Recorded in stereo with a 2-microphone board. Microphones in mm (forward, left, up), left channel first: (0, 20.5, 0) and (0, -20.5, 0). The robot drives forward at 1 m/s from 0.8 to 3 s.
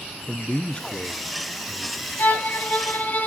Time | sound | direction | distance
0.3 | a man speaking | 30° left (ahead or behind) | 0.6 m
2.2 | a violin | 60° left (ahead or behind) | 1.7 m